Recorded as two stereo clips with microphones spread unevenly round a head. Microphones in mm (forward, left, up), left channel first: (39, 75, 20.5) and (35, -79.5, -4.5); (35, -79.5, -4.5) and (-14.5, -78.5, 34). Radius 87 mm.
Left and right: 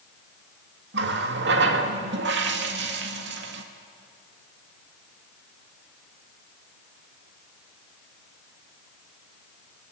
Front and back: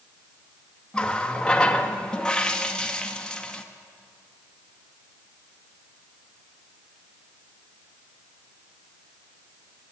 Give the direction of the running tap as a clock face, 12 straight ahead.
3 o'clock.